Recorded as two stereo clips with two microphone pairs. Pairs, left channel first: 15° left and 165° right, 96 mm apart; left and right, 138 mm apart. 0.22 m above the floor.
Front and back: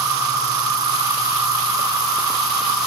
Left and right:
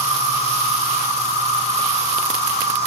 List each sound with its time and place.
0.0 s an insect: 120° right, 2 m